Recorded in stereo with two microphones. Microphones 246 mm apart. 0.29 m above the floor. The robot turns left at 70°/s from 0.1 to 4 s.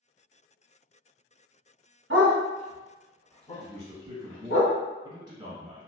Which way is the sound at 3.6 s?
30° right (ahead or behind).